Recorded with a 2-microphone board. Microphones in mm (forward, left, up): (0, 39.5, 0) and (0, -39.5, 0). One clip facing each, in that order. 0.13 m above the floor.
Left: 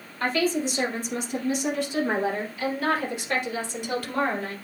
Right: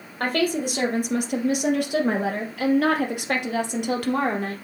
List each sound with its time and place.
0.2 s a woman speaking: 55° right (ahead or behind), 3 m; by 4.5 s 60° right (ahead or behind), 3 m